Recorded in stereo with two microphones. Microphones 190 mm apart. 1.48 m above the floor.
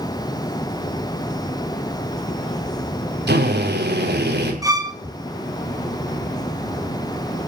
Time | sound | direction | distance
3.3 | a drill | 75° right (ahead or behind) | 5 m
4.6 | a violin | 20° right (ahead or behind) | 1.8 m